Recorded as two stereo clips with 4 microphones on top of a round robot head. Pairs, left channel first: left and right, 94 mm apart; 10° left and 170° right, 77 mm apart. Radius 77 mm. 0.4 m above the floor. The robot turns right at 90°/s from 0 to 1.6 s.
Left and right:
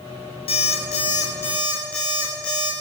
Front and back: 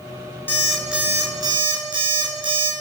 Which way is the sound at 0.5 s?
70° left.